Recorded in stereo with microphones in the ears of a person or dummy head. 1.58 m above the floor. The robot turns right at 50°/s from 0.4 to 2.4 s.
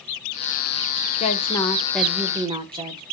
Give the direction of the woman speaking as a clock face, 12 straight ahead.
7 o'clock.